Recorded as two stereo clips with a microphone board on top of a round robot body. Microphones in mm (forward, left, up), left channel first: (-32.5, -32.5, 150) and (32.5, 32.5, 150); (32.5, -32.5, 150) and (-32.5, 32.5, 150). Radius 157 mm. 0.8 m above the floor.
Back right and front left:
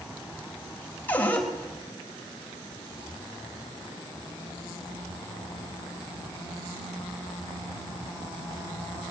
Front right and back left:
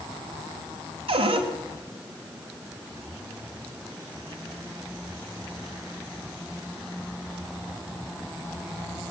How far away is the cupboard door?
About 3 m.